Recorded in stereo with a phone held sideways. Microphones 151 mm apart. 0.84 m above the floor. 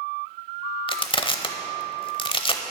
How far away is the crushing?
About 0.8 m.